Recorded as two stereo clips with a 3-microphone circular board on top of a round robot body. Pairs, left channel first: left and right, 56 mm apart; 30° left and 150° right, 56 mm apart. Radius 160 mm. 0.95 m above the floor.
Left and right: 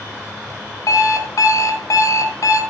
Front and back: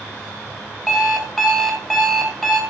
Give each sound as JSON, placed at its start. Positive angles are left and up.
{"t": 0.9, "sound": "an alarm clock", "azimuth_deg": 120, "distance_m": 3.0}